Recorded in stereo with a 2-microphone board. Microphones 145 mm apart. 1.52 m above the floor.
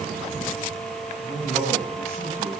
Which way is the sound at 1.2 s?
45° right (ahead or behind).